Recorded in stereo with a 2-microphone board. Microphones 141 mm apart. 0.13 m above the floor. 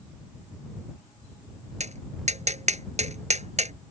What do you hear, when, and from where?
1.8 s tapping: 55° right (ahead or behind)